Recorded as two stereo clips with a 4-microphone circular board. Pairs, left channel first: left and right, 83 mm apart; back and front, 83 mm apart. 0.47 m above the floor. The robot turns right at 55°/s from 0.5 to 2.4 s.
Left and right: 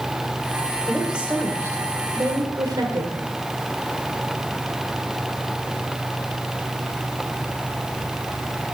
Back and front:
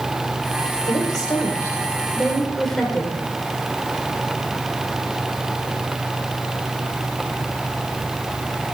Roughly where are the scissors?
I don't hear scissors.